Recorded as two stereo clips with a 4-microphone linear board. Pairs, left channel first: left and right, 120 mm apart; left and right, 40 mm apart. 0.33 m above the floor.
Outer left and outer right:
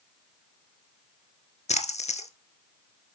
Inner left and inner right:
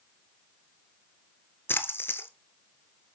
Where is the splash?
70° left (ahead or behind), 1.1 m.